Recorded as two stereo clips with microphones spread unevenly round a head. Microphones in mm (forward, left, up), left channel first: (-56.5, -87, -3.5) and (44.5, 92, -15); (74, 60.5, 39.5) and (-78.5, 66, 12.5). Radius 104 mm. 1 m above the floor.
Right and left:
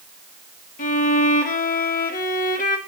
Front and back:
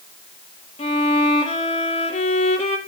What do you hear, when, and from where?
0.8 s a violin: 65° right, 1.0 m